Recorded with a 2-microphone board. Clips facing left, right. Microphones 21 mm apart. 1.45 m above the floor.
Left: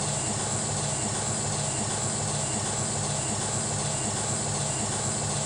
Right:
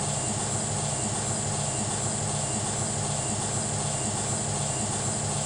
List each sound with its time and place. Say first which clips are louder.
0.0 s an engine running: even; 50° left (ahead or behind), 0.8 m